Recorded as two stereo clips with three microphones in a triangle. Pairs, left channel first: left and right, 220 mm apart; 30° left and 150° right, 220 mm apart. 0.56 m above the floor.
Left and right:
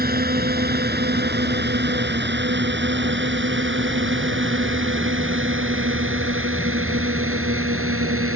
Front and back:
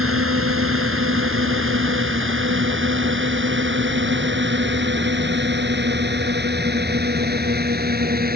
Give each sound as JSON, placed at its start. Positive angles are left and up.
{"t": 0.0, "sound": "a drone", "azimuth_deg": -135}